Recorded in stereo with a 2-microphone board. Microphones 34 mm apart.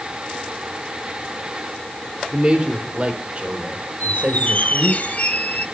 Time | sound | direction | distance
2.3 | a man speaking | 30° right (ahead or behind) | 3 m
4.0 | a squeak | 50° left (ahead or behind) | 0.9 m